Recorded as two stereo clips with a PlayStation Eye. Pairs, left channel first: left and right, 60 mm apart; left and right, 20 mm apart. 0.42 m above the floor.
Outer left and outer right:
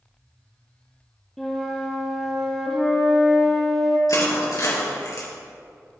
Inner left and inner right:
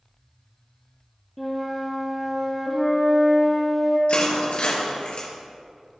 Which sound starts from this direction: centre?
A flute, at 1.4 s.